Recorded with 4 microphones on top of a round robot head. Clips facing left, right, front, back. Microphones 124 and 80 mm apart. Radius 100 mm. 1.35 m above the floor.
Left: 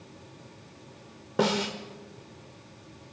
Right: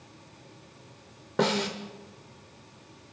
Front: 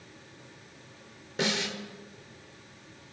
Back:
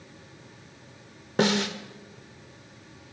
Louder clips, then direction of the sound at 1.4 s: Even, back 7 dB; 170° left.